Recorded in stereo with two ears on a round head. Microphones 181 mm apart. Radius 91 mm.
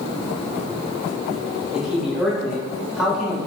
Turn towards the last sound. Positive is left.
turn(degrees=-5)  # may be behind; listen again after turning